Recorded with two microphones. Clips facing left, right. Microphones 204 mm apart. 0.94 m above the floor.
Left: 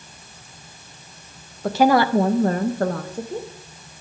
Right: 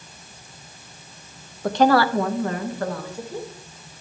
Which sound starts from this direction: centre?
A woman speaking, at 1.6 s.